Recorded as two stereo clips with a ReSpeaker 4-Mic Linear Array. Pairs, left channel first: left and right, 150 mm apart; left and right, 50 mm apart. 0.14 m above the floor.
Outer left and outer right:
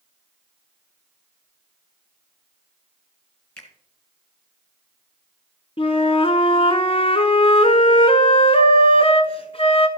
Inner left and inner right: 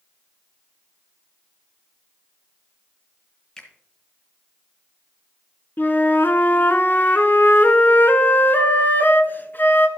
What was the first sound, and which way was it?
A finger snap, 15° left (ahead or behind).